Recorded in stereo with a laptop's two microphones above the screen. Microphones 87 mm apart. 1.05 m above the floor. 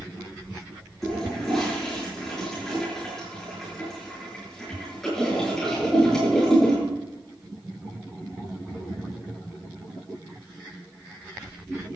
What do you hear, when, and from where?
1.0 s a toilet flushing: 5° left (ahead or behind), 9 m